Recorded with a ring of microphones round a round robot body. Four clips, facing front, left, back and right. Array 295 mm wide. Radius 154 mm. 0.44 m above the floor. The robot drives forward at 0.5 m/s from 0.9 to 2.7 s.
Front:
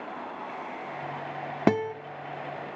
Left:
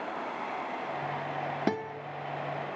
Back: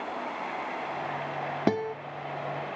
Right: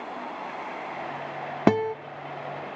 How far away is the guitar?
About 0.7 m.